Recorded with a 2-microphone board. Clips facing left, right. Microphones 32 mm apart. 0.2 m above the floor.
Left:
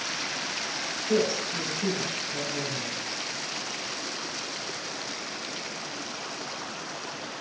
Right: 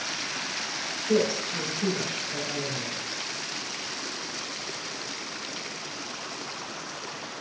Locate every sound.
1.1 s a woman speaking: 35° right (ahead or behind), 2 m